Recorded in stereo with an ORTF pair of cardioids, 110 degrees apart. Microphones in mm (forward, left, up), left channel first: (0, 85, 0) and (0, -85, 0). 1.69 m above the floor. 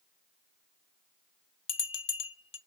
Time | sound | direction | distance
1.7 | a bell | 35° left | 1.0 m